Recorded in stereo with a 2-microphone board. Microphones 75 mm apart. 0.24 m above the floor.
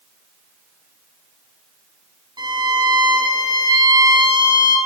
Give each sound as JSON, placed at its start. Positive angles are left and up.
{"t": 2.4, "sound": "a violin", "side_deg": -85, "distance_m": 6.5}